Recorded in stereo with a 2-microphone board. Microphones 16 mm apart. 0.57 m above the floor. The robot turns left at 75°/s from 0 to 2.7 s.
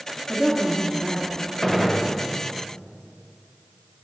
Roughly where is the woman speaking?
Behind right.